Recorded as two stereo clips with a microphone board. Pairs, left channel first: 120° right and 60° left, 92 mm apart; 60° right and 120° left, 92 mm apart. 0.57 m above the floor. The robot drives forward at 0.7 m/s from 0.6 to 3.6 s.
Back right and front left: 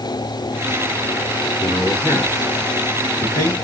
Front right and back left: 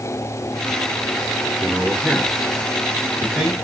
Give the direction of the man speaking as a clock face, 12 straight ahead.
5 o'clock.